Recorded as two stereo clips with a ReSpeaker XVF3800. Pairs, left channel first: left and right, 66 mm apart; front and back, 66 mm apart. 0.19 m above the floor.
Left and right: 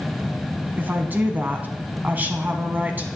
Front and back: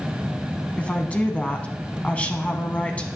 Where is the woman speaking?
55° right, 1.3 m.